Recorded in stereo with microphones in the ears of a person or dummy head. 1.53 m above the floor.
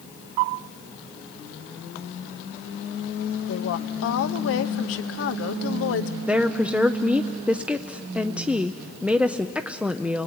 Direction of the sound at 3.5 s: 70° left (ahead or behind).